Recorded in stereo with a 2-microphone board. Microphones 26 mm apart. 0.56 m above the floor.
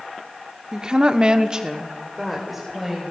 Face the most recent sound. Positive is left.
turn(degrees=0)  # may be behind; listen again after turning